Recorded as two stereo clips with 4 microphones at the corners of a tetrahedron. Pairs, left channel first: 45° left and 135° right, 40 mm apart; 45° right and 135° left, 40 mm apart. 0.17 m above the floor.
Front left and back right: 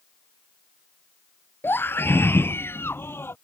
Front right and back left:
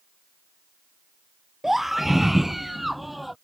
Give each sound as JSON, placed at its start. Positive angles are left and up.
{"t": 1.6, "sound": "a scream", "azimuth_deg": 55}